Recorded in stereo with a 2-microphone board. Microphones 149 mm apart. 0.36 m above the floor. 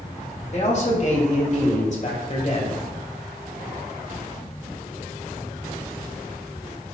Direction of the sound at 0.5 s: 50° left (ahead or behind).